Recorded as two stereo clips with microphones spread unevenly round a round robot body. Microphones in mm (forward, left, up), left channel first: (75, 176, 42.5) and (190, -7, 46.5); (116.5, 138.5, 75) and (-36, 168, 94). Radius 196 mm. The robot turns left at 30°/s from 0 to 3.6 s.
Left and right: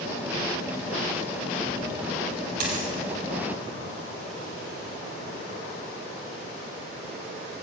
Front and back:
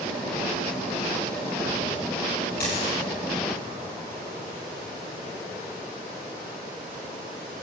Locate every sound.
2.6 s a dropped coin: 55° right, 4.5 m; by 3.0 s 65° right, 4.5 m